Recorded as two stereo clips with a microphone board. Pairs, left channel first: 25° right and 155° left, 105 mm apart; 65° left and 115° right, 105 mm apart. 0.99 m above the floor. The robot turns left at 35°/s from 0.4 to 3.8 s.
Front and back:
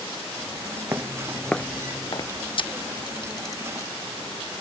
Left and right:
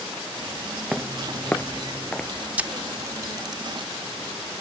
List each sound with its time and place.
0.9 s footsteps: 175° left; by 2.3 s 15° right
2.6 s a camera shutter: 40° right; by 3.9 s 80° right